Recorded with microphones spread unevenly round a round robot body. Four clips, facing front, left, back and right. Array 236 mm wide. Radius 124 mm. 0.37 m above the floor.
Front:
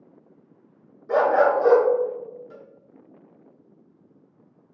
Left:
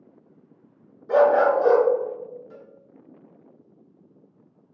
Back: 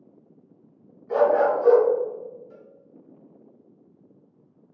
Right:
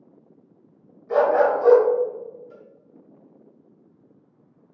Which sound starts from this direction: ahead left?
A dog barking, at 1.1 s.